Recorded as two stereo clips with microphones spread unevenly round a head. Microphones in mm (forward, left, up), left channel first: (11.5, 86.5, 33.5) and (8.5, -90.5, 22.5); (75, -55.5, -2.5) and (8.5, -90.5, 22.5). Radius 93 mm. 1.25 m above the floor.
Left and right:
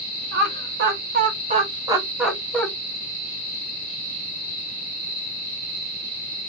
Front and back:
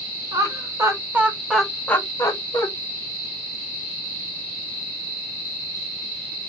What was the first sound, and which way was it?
Laughter, 105° right.